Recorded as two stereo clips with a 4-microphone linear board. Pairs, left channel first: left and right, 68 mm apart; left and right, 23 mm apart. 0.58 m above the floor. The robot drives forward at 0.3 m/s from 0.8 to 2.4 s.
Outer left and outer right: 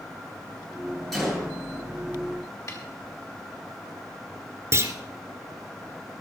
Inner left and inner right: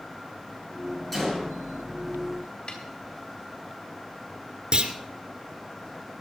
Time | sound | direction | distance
1.1 | a gunshot | 5° left (ahead or behind) | 9.5 m
2.7 | a snare drum | 55° left (ahead or behind) | 4.5 m
4.7 | a clunk | 40° right (ahead or behind) | 2.0 m